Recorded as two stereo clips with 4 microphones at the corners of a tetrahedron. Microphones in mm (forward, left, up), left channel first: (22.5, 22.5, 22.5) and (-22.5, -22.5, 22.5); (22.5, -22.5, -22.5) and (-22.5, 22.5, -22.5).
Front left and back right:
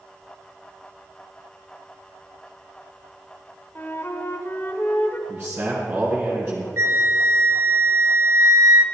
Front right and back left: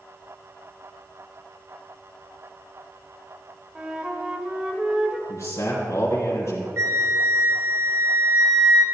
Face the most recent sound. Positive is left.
turn(degrees=180)